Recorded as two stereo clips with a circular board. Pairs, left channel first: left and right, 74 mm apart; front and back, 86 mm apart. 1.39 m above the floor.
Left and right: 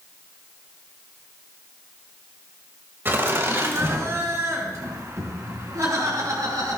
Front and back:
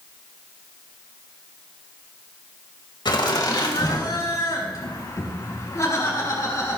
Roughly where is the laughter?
Ahead right.